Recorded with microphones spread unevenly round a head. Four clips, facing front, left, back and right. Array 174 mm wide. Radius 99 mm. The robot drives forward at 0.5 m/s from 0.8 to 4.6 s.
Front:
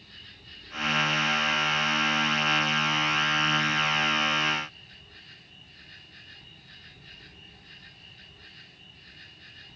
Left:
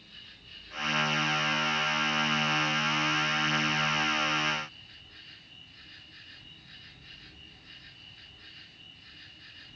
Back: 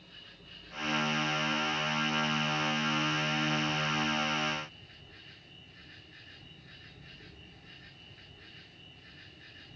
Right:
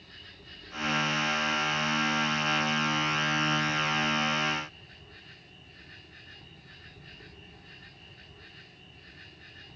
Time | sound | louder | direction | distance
0.0 | an insect | right 4 dB, front 2 dB | 80° right | 3.5 m